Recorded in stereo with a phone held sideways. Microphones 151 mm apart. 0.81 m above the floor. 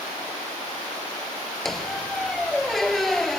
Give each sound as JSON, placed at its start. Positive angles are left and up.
{"t": 1.6, "sound": "a squeak", "side_deg": 0}